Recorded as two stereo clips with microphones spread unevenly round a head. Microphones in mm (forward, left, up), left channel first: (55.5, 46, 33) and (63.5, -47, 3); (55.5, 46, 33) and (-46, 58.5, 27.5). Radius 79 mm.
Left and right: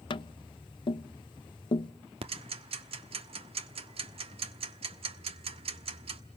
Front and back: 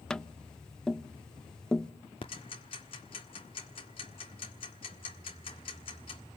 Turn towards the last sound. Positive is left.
turn(degrees=-60)